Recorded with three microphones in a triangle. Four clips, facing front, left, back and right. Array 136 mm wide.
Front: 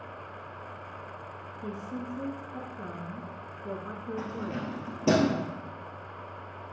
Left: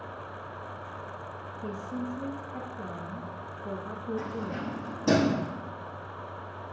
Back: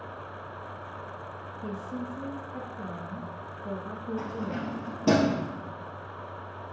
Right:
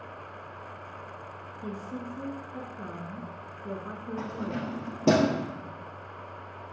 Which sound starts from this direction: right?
Keys jangling, at 4.2 s.